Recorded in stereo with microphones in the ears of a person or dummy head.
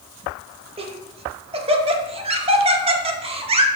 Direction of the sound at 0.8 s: 30° right (ahead or behind).